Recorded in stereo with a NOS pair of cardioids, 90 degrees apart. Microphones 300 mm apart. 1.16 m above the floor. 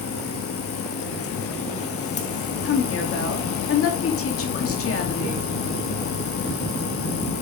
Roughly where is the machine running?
Ahead left.